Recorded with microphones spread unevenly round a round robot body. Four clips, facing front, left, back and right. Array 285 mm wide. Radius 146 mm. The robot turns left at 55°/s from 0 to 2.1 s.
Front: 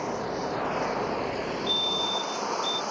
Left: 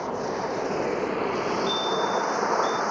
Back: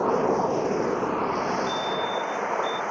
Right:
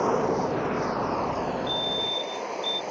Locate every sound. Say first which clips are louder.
0.0 s running water: right 4 dB, back 8 dB; 145° right; by 2.9 s 100° left
1.7 s a fire alarm: left 5 dB, back 4 dB; 35° right; by 2.8 s 60° right